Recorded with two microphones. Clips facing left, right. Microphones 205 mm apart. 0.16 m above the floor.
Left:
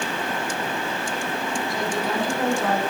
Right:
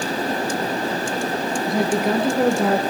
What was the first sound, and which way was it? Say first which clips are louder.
A woman speaking: right 9 dB; 60° right (ahead or behind).